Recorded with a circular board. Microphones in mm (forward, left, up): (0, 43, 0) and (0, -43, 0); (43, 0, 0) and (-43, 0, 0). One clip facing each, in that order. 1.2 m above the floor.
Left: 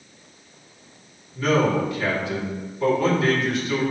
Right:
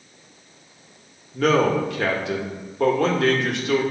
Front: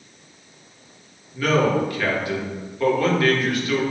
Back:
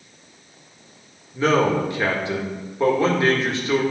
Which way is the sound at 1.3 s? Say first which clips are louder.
Right 2 dB, back 1 dB; 115° right.